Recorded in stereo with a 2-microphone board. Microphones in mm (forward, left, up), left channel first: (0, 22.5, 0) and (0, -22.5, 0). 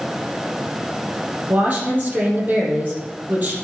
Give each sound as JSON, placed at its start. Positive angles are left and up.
{"t": 1.5, "sound": "a woman speaking", "side_deg": -40, "distance_m": 4.5}